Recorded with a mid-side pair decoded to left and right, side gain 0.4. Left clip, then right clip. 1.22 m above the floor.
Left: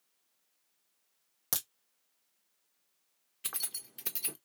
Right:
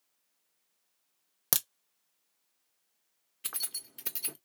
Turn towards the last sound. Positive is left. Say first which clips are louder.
# right 2 dB
turn(degrees=-5)